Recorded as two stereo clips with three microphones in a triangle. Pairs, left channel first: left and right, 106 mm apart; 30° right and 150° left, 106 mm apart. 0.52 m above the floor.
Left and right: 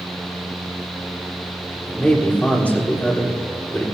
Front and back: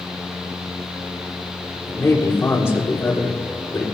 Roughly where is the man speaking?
Ahead left.